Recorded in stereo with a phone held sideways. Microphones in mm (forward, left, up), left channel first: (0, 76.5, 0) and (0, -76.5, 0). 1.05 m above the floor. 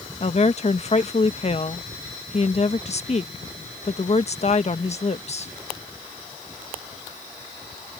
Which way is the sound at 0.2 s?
45° left (ahead or behind).